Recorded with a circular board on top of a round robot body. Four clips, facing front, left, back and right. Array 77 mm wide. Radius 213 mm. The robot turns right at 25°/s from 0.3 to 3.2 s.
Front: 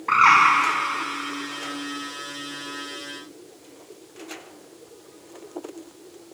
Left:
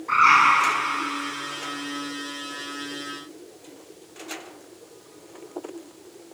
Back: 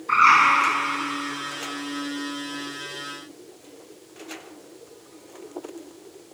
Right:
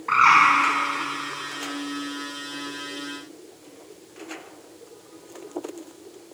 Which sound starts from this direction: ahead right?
A bird, at 0.1 s.